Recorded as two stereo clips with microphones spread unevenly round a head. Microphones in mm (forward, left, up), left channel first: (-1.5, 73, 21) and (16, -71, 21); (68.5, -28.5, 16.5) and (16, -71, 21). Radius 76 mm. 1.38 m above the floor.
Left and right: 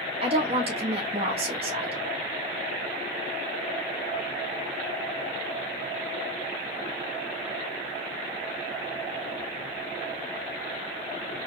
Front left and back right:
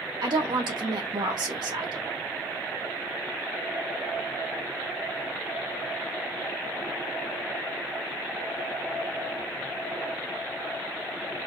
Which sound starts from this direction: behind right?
A woman speaking, at 0.2 s.